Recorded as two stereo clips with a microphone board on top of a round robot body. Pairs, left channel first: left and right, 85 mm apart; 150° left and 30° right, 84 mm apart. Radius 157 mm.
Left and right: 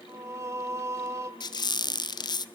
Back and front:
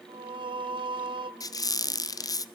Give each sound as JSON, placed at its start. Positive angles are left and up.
{"t": 0.1, "sound": "singing", "azimuth_deg": -35, "distance_m": 1.6}
{"t": 1.4, "sound": "a squeak", "azimuth_deg": 115, "distance_m": 1.0}